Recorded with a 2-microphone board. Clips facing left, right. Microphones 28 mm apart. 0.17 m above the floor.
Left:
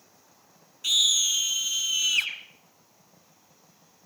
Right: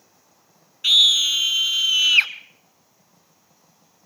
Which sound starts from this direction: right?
A scream, at 0.8 s.